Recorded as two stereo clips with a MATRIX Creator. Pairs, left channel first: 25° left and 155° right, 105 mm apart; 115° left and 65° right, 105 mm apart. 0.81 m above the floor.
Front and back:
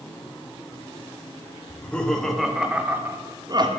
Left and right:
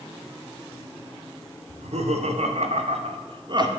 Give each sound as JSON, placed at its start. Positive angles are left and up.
{"t": 1.7, "sound": "laughter", "azimuth_deg": -55, "distance_m": 3.0}